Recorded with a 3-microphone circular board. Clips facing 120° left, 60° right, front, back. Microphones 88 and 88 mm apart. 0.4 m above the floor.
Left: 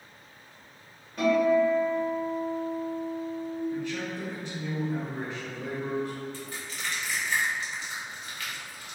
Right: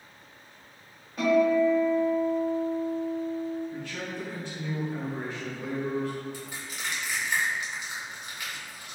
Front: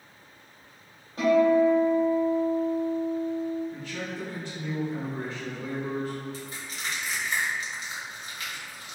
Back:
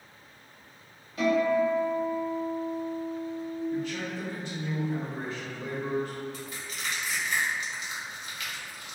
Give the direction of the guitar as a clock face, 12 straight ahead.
11 o'clock.